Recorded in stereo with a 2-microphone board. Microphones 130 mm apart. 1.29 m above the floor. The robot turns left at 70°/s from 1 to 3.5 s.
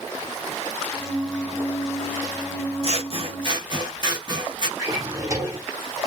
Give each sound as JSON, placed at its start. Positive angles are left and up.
{"t": 2.8, "sound": "scissors", "azimuth_deg": -85, "distance_m": 0.7}
{"t": 4.8, "sound": "a drawer", "side_deg": -25, "distance_m": 1.1}